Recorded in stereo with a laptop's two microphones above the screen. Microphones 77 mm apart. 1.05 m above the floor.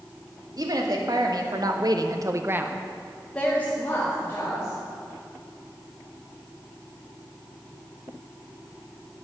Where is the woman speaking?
55° right (ahead or behind), 2.5 m; by 4.8 s 35° left (ahead or behind), 3 m.